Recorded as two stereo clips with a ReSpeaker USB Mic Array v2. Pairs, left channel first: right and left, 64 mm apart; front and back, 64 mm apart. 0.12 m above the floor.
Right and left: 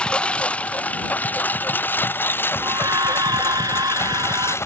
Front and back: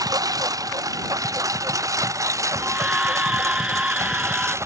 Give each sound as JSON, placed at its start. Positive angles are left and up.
{"t": 0.0, "sound": "a lawn mower", "azimuth_deg": -165}
{"t": 2.6, "sound": "a scream", "azimuth_deg": 105}